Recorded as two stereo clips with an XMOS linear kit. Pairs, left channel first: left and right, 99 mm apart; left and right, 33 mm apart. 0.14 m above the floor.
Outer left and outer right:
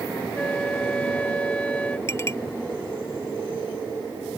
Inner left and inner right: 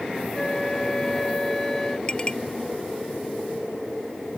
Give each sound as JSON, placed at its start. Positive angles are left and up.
{"t": 0.3, "sound": "a flute", "side_deg": 15}
{"t": 2.1, "sound": "a clink", "side_deg": 25}